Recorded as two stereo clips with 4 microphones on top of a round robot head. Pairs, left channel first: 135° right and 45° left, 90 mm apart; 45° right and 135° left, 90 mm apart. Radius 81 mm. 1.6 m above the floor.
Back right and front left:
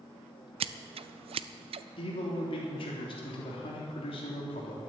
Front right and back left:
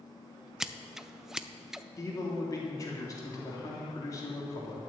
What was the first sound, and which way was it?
Scissors, 50° left.